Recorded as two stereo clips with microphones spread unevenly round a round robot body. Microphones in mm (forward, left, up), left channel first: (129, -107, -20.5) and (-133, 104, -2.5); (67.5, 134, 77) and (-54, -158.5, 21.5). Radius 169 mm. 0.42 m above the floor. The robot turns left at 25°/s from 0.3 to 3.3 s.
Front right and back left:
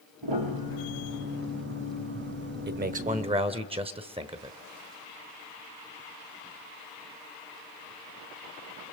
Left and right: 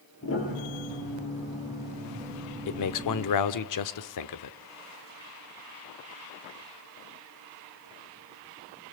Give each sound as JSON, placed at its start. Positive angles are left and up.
{"t": 0.2, "sound": "a piano", "azimuth_deg": 120, "distance_m": 5.0}
{"t": 2.7, "sound": "a man speaking", "azimuth_deg": 85, "distance_m": 1.1}